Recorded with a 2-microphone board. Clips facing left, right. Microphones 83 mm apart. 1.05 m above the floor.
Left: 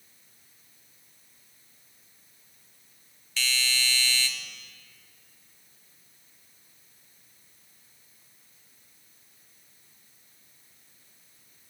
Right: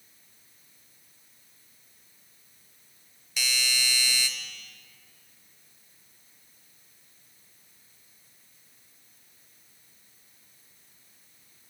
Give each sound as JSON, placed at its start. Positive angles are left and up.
{"t": 3.4, "sound": "a doorbell", "side_deg": -15, "distance_m": 0.5}